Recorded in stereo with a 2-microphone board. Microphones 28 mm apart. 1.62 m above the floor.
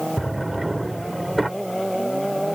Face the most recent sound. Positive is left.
turn(degrees=-5)  # may be behind; listen again after turning